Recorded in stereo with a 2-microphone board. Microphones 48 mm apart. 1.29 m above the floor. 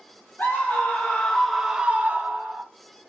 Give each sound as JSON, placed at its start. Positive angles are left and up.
{"t": 0.4, "sound": "a scream", "side_deg": 40, "distance_m": 0.9}